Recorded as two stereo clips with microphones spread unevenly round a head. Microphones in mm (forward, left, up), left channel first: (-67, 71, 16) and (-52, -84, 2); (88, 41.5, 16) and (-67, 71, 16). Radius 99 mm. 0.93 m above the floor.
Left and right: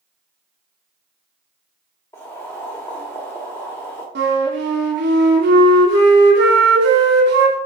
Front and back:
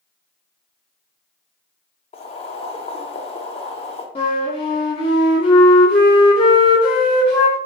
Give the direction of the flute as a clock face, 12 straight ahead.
2 o'clock.